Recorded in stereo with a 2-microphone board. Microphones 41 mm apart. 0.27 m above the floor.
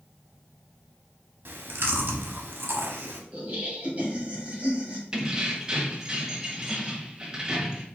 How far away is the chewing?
About 0.7 m.